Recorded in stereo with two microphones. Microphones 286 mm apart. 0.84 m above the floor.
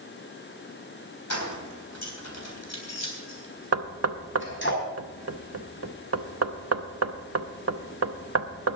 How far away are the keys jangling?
About 3.5 m.